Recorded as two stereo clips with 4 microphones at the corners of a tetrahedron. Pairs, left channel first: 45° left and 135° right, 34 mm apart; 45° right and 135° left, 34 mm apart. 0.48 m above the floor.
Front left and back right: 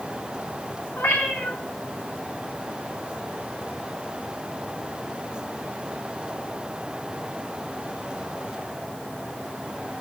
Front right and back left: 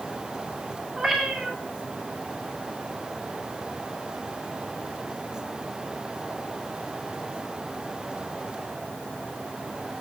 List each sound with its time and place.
1.0 s a cat meowing: 50° left, 3 m